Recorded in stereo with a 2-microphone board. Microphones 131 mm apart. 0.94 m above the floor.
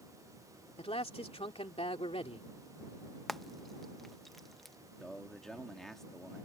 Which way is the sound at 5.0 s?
Centre (ahead or behind).